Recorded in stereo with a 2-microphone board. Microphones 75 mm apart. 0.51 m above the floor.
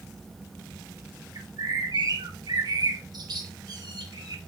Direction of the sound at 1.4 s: 60° right (ahead or behind).